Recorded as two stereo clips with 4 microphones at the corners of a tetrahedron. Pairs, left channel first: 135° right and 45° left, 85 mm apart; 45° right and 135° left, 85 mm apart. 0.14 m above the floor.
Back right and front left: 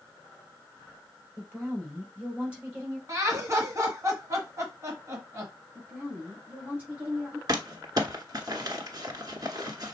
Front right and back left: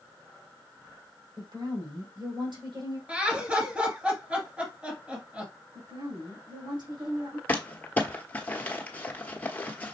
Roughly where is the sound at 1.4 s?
Behind left.